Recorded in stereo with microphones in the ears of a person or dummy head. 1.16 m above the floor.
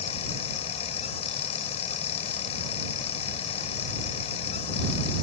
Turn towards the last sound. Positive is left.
turn(degrees=35)  # may be behind; listen again after turning